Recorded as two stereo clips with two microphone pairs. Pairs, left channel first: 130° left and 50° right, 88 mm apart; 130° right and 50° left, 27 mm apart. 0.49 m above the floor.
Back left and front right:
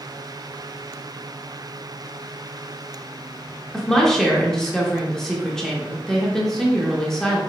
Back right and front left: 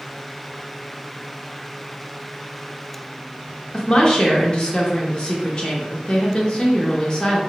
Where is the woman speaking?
145° right, 0.7 m.